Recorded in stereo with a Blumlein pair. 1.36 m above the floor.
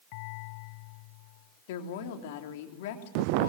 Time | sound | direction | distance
1.7 | a woman speaking | 50° left | 3.5 m